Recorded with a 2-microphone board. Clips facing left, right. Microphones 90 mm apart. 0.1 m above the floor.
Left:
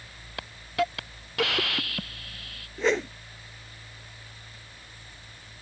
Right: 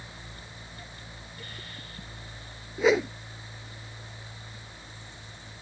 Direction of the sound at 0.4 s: 75° left (ahead or behind).